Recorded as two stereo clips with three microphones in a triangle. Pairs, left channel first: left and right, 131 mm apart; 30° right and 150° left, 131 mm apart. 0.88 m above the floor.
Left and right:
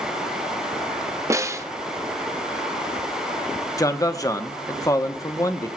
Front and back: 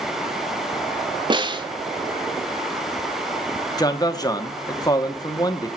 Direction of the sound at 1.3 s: 155° right.